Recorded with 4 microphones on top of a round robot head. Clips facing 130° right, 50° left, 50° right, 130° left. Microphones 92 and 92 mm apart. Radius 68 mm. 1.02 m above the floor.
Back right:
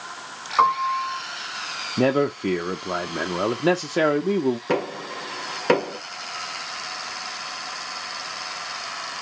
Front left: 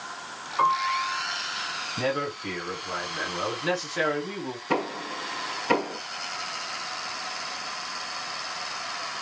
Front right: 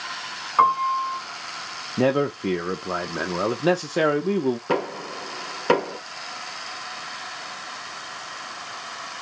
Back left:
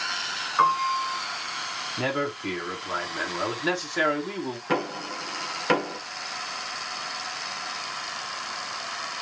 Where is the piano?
95° right, 2.0 m.